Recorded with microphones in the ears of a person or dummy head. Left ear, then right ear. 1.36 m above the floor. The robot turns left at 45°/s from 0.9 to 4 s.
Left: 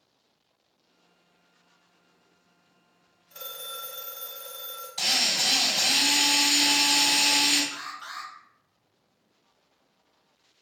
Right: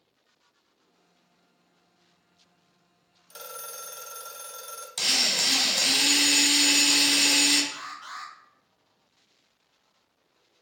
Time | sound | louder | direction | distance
3.3 | a phone ringing | left 2 dB | 70° right | 1.0 m
5.0 | a drill | even | 35° right (ahead or behind) | 1.4 m
7.7 | an alarm | left 1 dB | 35° left (ahead or behind) | 1.1 m